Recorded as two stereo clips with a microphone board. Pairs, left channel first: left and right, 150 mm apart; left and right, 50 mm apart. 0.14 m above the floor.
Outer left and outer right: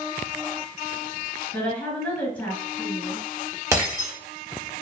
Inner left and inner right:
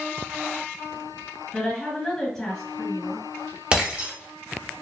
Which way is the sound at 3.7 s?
20° right (ahead or behind).